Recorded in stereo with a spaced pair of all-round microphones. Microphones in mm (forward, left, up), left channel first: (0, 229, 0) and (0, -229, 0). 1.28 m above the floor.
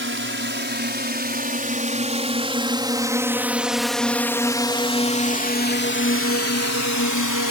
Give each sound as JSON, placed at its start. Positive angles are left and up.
{"t": 0.0, "sound": "a drone", "side_deg": -25}